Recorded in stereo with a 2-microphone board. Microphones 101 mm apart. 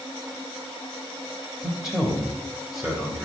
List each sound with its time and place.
1.6 s a man speaking: 5° right (ahead or behind), 1.1 m